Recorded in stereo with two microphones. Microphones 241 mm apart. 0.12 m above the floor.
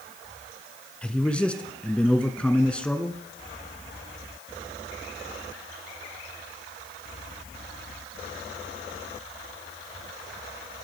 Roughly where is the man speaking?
Centre.